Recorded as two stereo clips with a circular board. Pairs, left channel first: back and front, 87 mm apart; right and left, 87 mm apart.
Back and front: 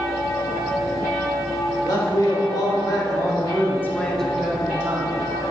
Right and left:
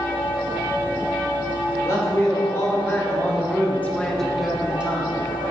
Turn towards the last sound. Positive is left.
turn(degrees=30)